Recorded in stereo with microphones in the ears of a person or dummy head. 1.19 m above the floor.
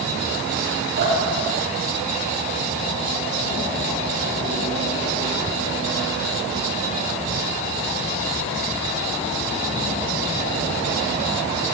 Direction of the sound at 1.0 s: 55° right (ahead or behind).